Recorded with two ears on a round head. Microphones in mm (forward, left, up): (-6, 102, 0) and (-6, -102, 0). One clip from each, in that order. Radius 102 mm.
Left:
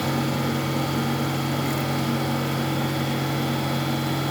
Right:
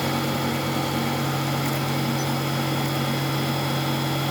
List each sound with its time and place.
Only background noise.